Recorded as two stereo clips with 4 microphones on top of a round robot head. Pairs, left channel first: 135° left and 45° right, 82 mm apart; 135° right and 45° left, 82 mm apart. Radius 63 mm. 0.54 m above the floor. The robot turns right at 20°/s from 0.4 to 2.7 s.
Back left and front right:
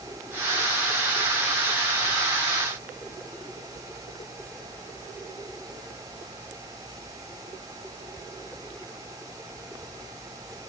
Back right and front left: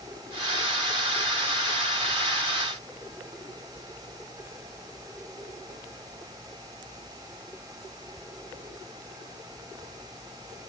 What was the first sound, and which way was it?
Only background noise.